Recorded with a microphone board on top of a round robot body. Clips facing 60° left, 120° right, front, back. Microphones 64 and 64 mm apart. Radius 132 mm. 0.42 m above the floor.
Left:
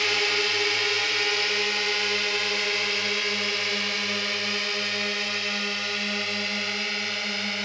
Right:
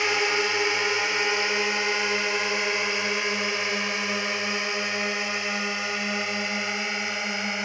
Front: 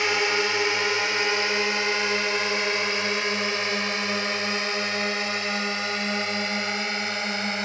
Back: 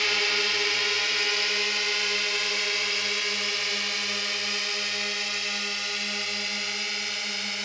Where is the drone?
60° right; by 7.7 s 50° right.